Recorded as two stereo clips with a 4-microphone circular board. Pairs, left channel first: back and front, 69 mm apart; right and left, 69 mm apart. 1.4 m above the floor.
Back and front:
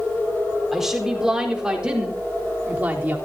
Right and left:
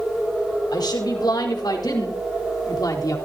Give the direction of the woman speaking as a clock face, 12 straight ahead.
3 o'clock.